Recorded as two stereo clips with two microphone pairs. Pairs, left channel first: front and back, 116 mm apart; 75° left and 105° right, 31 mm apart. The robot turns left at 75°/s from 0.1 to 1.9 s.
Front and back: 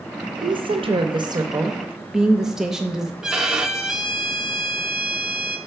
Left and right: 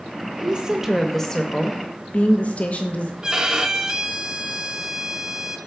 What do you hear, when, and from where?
0.4 s a woman speaking: 150° right, 0.6 m; by 3.1 s 100° left, 0.6 m
3.2 s a violin: 110° right, 0.5 m